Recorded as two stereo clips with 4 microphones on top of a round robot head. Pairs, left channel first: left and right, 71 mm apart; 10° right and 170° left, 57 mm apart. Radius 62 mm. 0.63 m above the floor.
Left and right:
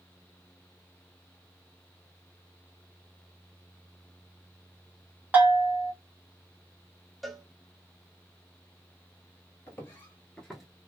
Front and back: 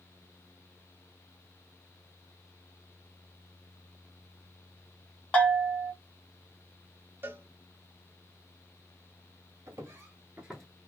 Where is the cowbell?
Straight behind, 0.7 m.